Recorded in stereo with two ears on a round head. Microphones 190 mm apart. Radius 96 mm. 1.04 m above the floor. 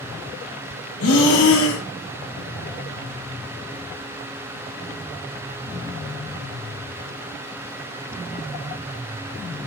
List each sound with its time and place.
1.0 s breathing: 70° left (ahead or behind), 2 m